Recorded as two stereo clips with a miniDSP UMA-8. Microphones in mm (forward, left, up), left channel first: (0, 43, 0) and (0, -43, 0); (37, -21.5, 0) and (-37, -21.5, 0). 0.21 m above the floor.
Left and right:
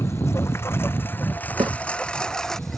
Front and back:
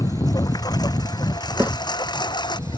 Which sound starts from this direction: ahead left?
A lawn mower, at 0.0 s.